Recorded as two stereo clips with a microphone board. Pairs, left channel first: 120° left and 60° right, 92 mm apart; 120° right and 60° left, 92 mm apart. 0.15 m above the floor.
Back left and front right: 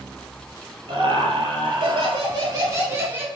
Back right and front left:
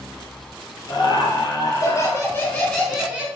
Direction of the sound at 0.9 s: 90° right.